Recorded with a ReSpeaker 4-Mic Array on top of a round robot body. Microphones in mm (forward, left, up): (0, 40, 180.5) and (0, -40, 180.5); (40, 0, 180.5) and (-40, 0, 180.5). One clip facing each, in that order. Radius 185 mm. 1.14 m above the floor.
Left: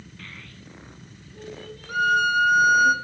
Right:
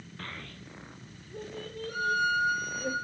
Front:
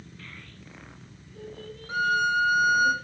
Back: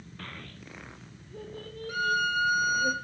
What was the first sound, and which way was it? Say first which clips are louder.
A child speaking: right 3 dB, back 2 dB; 140° right.